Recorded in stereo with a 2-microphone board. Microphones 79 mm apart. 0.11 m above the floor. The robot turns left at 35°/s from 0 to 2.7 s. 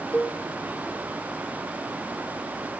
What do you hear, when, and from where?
0.1 s a cowbell: 20° left (ahead or behind), 1.9 m; by 0.4 s 10° left (ahead or behind), 1.9 m